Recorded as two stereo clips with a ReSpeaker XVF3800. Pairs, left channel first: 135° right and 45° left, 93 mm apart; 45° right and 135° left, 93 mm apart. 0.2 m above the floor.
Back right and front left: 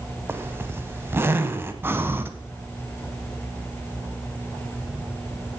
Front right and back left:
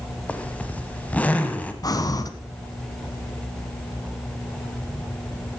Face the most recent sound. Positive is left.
turn(degrees=-15)